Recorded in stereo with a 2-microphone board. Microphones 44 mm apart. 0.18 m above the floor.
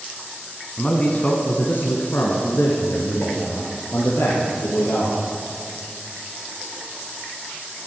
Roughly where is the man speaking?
Centre.